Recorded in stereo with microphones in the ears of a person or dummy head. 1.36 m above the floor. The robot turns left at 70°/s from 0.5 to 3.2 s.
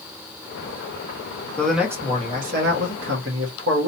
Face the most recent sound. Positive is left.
turn(degrees=-105)